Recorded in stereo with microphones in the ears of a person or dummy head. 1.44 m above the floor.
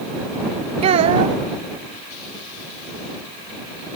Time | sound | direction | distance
0.8 | a child speaking | 35° right (ahead or behind) | ?